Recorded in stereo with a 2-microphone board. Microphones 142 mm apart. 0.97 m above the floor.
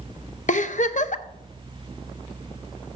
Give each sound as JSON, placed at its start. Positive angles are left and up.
{"t": 0.5, "sound": "a giggle", "side_deg": 60, "distance_m": 0.6}